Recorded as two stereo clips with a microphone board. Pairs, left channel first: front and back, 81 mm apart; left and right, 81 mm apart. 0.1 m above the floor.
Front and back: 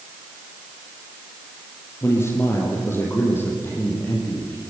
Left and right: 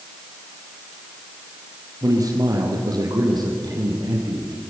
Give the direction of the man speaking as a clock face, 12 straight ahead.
2 o'clock.